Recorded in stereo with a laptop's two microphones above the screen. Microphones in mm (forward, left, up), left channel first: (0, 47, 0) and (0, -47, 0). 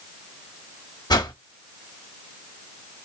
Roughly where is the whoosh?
Left.